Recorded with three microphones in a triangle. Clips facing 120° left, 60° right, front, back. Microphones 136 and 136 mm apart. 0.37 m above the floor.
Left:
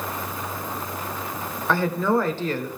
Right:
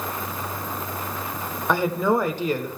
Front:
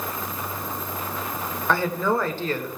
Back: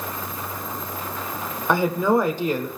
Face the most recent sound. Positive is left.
turn(degrees=-120)